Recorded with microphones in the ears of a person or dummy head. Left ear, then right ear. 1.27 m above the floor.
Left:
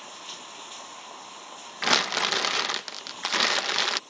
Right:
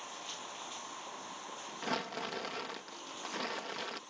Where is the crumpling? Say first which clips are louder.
Left 15 dB; 70° left (ahead or behind).